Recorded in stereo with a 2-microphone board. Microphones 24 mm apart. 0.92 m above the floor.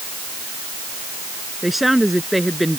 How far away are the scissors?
No scissors in this recording.